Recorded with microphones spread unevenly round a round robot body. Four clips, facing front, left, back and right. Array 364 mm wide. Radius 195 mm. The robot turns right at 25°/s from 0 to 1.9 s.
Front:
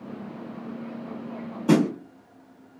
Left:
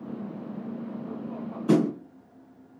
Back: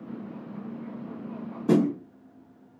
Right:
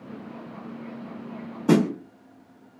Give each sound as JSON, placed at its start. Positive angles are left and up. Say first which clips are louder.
{"t": 1.7, "sound": "a snare drum", "louder": "right 2 dB, front 2 dB", "azimuth_deg": -60, "distance_m": 1.5}